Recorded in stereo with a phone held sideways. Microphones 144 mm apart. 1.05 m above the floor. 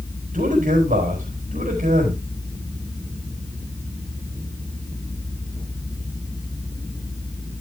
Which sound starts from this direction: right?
A man speaking, at 0.3 s.